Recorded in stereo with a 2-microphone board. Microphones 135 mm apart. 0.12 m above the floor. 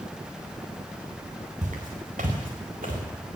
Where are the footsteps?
80° right, 5 m.